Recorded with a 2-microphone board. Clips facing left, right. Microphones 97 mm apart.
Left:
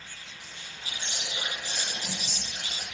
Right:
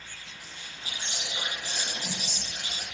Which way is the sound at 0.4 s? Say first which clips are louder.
Even; 40° right (ahead or behind).